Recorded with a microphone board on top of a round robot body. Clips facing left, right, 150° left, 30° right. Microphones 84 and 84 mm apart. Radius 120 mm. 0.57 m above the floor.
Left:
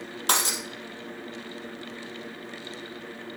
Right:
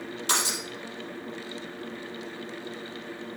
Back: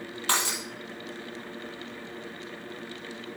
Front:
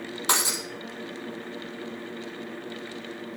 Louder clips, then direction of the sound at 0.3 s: Left 2 dB, front 1 dB; 45° left.